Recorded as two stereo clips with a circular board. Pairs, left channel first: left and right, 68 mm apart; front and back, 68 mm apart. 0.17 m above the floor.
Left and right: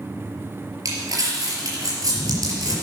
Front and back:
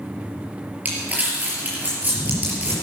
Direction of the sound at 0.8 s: 115° right.